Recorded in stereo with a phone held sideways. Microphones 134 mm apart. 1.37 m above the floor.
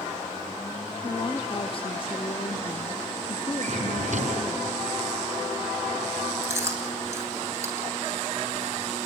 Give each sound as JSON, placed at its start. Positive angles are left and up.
{"t": 1.0, "sound": "a woman speaking", "side_deg": 40, "distance_m": 0.6}
{"t": 3.6, "sound": "a drawer", "side_deg": -65, "distance_m": 4.0}
{"t": 6.4, "sound": "chewing", "side_deg": -20, "distance_m": 3.5}